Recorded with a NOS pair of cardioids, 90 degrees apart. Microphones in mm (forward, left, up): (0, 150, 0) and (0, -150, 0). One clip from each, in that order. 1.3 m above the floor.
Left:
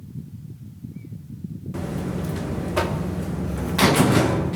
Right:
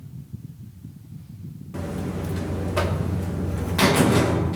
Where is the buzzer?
10° left, 1.0 m.